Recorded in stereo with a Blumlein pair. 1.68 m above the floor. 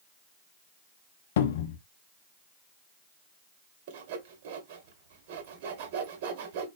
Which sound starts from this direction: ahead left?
A cupboard door, at 1.4 s.